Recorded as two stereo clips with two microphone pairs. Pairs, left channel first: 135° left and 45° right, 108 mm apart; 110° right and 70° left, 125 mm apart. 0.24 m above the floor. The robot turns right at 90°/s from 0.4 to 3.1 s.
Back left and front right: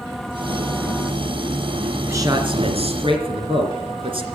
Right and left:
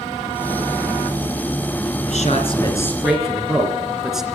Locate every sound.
2.1 s a man speaking: 110° right, 2.5 m; by 4.2 s 15° right, 2.5 m